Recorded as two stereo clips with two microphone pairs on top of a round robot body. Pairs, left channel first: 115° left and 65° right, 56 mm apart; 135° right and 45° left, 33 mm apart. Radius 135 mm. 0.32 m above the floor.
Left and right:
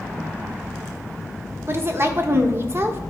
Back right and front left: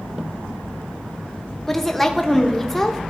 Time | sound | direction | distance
1.7 | a woman speaking | 85° right | 1.2 m